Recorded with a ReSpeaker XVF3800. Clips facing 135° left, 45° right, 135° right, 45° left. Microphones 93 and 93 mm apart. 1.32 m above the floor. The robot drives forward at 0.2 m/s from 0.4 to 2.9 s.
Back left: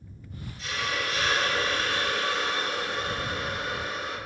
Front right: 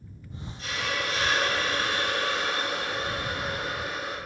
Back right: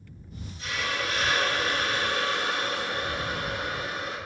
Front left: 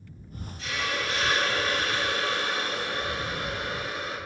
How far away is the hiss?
About 0.7 m.